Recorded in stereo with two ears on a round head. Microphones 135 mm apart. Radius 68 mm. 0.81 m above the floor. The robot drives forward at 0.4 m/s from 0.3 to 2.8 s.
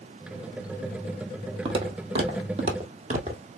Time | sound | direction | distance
1.6 | footsteps | 35° right (ahead or behind) | 1.3 m